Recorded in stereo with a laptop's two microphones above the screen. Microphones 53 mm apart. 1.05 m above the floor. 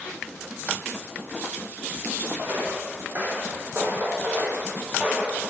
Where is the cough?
I don't hear a cough.